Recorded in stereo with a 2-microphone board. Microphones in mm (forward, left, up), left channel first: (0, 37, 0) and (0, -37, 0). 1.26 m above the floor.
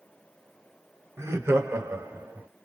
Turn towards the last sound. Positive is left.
turn(degrees=-30)  # may be behind; listen again after turning